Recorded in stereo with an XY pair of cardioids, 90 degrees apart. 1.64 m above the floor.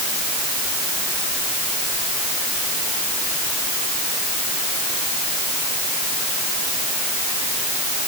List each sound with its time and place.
Only background noise.